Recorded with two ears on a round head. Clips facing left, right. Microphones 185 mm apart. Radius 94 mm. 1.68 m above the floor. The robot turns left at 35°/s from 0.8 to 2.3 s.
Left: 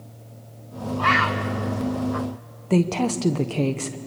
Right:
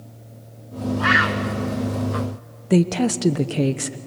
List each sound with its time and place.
1.0 s a bird: 5° right (ahead or behind), 0.7 m; by 2.3 s 40° right (ahead or behind), 0.7 m
2.7 s a woman speaking: 15° right (ahead or behind), 0.9 m